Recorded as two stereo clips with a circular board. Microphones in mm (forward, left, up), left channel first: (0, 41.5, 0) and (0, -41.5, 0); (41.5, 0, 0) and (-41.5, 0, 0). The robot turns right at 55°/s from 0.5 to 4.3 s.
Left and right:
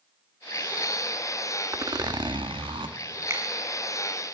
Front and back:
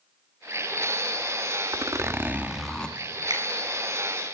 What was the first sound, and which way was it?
A zipper, 140° right.